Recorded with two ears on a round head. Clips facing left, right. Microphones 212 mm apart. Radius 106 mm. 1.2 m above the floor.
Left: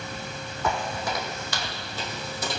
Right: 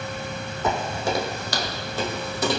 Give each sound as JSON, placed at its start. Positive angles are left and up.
{"t": 0.6, "sound": "footsteps", "side_deg": -20, "distance_m": 3.5}